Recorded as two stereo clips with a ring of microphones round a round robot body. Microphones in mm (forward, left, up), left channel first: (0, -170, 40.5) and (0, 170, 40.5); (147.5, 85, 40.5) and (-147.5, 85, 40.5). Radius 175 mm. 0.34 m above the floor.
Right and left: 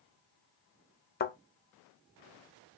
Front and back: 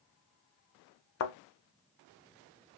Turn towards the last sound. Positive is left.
turn(degrees=-30)